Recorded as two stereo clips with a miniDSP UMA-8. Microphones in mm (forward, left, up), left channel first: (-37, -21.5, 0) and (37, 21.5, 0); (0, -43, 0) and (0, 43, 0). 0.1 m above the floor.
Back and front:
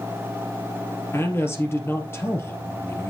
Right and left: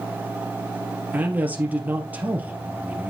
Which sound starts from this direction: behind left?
A man speaking, at 1.1 s.